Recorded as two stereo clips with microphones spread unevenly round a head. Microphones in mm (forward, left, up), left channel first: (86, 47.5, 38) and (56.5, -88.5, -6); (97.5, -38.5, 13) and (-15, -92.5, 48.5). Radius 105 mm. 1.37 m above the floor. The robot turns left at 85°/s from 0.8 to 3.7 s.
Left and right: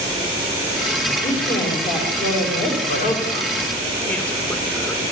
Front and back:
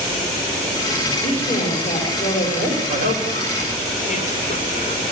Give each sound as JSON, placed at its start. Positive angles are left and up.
{"t": 1.2, "sound": "a woman speaking", "azimuth_deg": 140, "distance_m": 6.0}
{"t": 2.9, "sound": "a woman speaking", "azimuth_deg": 65, "distance_m": 5.5}